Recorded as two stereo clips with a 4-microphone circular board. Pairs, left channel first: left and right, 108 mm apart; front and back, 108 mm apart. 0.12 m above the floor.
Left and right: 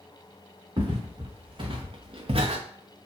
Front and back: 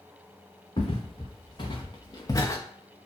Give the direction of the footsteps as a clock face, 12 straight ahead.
1 o'clock.